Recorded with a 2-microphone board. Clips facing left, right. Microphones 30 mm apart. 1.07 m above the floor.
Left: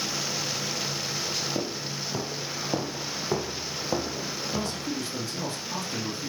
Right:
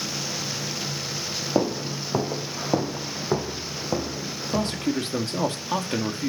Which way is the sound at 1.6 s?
55° right (ahead or behind).